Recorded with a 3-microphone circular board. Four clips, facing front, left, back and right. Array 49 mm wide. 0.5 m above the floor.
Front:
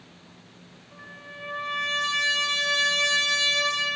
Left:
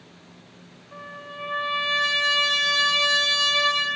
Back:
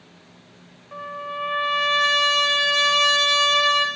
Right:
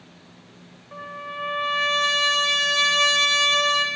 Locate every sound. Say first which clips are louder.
0.9 s a trumpet: right 5 dB, back 13 dB; 155° right, 3.5 m